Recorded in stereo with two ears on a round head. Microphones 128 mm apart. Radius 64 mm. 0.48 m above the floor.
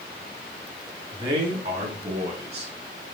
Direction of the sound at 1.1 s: 30° right (ahead or behind).